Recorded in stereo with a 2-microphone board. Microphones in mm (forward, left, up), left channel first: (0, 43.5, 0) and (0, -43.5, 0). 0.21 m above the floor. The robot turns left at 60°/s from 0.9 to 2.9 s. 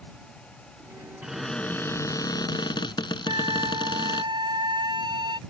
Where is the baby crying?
I don't hear a baby crying.